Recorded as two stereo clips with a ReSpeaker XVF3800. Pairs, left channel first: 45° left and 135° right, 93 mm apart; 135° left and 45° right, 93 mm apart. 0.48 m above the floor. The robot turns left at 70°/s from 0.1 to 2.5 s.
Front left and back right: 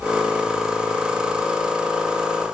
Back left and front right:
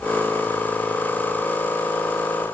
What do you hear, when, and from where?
Only background noise.